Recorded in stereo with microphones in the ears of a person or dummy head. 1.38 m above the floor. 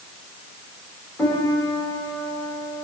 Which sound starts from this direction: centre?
A piano, at 1.2 s.